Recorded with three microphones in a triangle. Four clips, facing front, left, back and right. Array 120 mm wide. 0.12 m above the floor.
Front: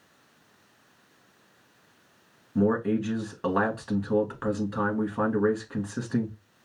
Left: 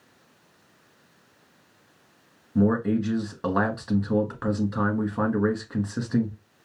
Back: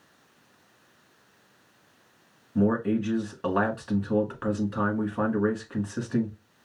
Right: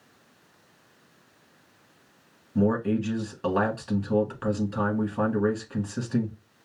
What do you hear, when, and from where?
2.5 s a man speaking: 75° left, 1.2 m